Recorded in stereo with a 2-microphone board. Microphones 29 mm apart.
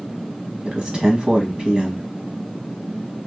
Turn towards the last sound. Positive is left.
turn(degrees=-25)  # may be behind; listen again after turning